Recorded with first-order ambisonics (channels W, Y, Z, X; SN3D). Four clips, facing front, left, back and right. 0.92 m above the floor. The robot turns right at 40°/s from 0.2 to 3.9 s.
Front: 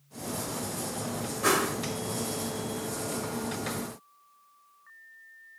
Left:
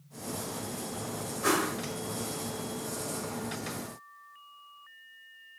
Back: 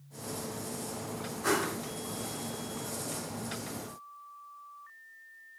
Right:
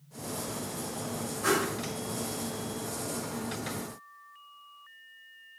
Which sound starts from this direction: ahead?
A whoosh, at 1.4 s.